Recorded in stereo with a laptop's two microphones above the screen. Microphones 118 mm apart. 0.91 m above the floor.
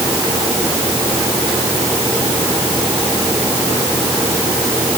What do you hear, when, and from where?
Only background noise.